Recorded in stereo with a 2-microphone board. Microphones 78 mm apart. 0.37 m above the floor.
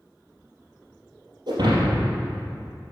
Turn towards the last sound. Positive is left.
turn(degrees=-55)  # may be behind; listen again after turning